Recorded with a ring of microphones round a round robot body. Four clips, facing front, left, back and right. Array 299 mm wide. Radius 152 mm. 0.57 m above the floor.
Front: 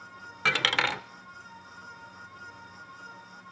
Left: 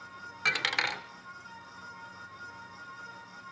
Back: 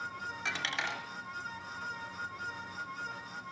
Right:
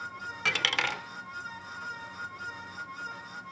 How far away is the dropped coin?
About 0.6 m.